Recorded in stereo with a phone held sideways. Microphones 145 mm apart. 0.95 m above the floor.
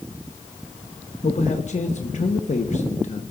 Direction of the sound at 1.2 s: 55° left (ahead or behind).